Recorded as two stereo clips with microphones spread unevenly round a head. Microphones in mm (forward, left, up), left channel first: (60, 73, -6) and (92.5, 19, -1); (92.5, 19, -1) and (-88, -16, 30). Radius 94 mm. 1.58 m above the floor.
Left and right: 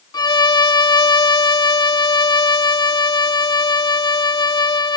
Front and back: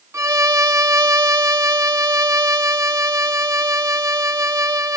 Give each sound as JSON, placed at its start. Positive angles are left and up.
{"t": 0.1, "sound": "a violin", "azimuth_deg": 115}